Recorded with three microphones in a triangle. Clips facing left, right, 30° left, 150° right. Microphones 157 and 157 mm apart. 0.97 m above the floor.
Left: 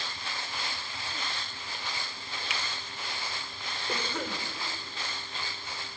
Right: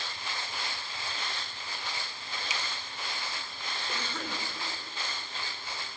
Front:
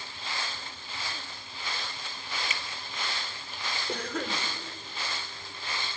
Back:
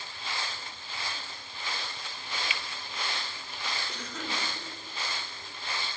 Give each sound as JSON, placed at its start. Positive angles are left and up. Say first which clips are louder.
{"t": 2.5, "sound": "a finger snap", "louder": "left 1 dB, even", "azimuth_deg": 70, "distance_m": 0.9}
{"t": 3.9, "sound": "a cough", "louder": "left 5 dB, front 5 dB", "azimuth_deg": 15, "distance_m": 4.0}